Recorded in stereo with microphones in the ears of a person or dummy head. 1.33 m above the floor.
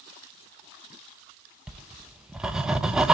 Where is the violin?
No violin in this recording.